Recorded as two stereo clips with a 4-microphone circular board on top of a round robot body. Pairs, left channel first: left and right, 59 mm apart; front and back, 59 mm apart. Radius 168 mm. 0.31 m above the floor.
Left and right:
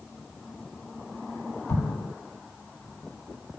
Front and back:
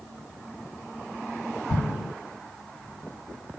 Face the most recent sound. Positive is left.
turn(degrees=50)